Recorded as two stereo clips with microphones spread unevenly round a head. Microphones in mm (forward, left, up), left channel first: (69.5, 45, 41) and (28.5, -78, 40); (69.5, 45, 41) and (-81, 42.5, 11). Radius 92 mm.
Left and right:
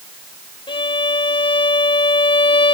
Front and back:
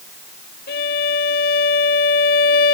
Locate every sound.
0.7 s a violin: 20° left